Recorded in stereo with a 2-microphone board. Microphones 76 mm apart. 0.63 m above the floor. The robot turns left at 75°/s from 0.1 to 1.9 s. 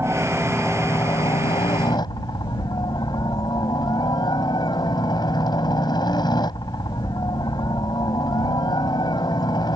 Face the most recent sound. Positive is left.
turn(degrees=75)